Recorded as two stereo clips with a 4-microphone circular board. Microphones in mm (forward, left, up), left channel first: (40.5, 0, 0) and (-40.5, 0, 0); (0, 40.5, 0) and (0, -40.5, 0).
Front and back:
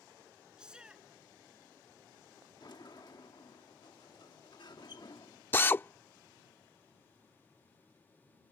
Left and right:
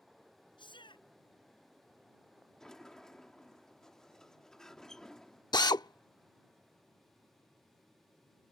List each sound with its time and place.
0.6 s a shout: 100° left
2.6 s a sliding door: 10° left
5.5 s a drill: 65° left